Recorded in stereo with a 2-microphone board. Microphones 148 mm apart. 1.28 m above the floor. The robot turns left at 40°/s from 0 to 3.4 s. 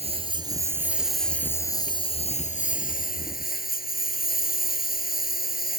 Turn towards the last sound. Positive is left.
turn(degrees=90)